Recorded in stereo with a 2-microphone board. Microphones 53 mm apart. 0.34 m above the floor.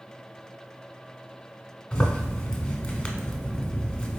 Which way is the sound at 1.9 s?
20° left (ahead or behind).